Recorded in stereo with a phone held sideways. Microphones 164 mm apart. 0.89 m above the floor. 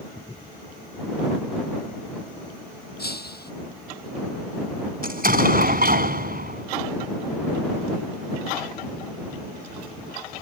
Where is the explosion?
65° right (ahead or behind).